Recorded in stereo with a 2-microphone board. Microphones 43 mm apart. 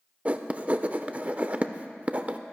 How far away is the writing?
About 0.5 m.